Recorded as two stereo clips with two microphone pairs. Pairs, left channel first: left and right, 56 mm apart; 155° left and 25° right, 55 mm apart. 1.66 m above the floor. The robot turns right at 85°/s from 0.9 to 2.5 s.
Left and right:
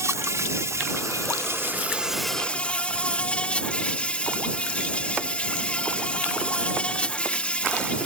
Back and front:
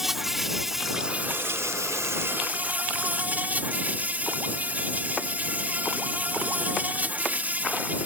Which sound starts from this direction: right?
An insect, at 0.0 s.